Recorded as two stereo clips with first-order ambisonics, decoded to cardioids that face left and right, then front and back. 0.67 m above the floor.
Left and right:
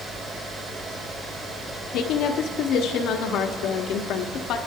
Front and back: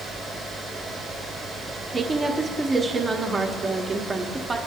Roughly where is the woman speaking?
Left.